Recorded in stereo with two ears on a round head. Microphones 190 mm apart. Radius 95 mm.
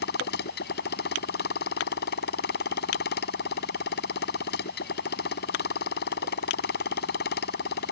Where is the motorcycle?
50° left (ahead or behind).